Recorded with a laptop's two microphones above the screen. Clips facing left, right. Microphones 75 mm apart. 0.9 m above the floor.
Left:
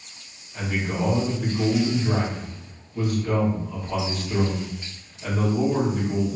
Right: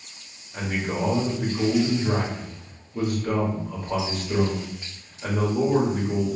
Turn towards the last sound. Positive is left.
turn(degrees=-50)  # may be behind; listen again after turning